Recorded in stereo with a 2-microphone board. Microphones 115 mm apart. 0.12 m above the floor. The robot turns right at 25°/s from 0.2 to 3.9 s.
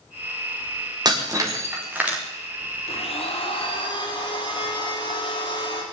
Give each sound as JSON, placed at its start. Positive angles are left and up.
{"t": 1.1, "sound": "breaking glass", "side_deg": -35, "distance_m": 4.0}
{"t": 2.9, "sound": "a blender", "side_deg": 60, "distance_m": 3.5}